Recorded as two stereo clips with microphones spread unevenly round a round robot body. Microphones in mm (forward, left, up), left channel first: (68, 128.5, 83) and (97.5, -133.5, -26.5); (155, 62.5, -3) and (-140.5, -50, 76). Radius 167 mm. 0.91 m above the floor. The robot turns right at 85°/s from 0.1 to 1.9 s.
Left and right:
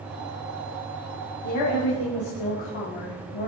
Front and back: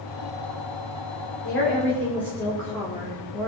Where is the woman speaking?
65° left, 2.5 m; by 3.5 s 105° left, 2.5 m.